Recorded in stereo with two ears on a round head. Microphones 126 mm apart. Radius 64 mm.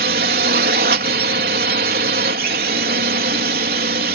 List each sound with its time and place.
0.0 s a drone: 65° right (ahead or behind)